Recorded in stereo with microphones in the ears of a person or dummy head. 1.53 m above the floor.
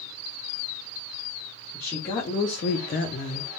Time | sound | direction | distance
1.7 | a woman speaking | 25° left (ahead or behind) | 1.0 m